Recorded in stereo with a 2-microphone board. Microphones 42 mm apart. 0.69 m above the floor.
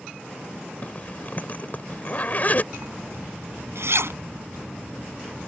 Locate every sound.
0.8 s a zipper: 40° left (ahead or behind)
2.7 s a zipper: 85° right